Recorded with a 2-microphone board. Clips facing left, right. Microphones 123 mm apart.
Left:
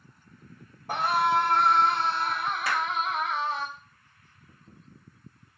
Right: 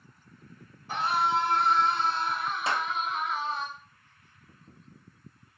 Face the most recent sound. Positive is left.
turn(degrees=-25)  # may be behind; listen again after turning